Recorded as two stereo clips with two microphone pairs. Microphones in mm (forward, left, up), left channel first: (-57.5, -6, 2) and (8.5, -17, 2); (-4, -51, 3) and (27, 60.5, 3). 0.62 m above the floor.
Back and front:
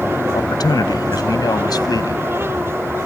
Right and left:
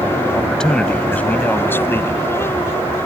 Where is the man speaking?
165° left; by 2.3 s 170° right.